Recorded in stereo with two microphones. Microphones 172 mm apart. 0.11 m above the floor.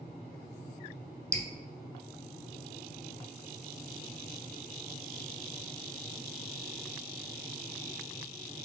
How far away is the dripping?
About 0.7 m.